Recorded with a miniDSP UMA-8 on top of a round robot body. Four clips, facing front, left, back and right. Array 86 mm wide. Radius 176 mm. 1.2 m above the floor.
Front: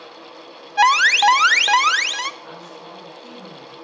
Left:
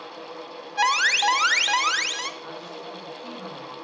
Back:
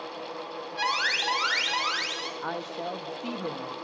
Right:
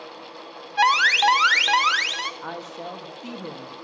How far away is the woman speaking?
About 1.7 m.